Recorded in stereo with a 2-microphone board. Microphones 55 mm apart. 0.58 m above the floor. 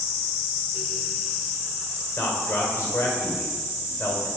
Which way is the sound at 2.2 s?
45° left (ahead or behind).